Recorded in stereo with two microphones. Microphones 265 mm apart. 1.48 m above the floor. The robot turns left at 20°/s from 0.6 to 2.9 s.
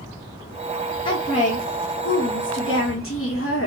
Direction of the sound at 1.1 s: 165° left.